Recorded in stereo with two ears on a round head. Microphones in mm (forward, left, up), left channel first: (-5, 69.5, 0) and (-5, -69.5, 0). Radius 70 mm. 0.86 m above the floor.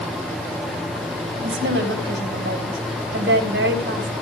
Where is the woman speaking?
80° right, 4.5 m.